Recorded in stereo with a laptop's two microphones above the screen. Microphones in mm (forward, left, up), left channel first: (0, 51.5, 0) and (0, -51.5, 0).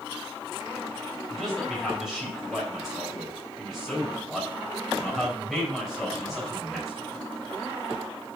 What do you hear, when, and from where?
1.3 s a man speaking: 5° right (ahead or behind), 3 m